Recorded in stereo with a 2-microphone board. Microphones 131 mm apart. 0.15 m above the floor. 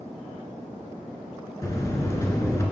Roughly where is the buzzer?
Left.